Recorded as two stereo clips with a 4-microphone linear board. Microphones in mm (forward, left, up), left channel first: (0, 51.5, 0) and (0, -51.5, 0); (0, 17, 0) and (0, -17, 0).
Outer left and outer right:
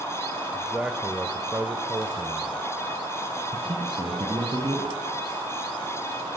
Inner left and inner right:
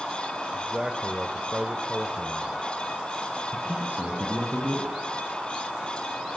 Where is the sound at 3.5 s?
50° right (ahead or behind), 3 m.